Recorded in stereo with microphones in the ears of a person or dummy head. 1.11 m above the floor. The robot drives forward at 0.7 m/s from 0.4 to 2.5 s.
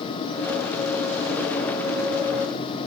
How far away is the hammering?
No hammering in this recording.